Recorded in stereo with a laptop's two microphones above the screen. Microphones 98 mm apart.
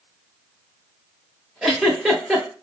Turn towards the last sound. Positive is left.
turn(degrees=0)  # may be behind; listen again after turning